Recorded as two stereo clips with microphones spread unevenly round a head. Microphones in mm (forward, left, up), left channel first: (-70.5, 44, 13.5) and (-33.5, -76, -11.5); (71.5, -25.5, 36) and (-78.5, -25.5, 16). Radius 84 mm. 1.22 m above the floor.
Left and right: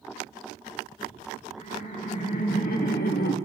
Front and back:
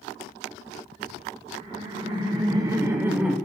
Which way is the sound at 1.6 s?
120° left.